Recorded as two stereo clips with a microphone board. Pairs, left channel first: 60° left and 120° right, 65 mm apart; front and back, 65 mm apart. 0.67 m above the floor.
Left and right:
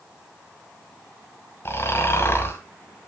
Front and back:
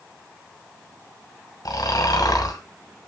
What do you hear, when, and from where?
1.6 s snoring: 10° left, 1.7 m